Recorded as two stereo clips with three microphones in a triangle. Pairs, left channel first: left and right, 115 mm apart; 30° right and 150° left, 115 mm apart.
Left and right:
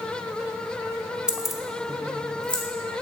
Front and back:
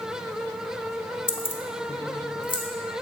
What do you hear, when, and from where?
1.3 s keys jangling: 10° right, 0.8 m; by 2.6 s 10° left, 2 m